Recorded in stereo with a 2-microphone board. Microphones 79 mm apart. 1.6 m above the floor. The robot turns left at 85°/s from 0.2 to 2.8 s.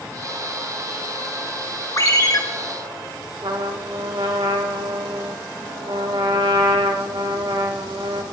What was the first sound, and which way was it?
A ringtone, 120° left.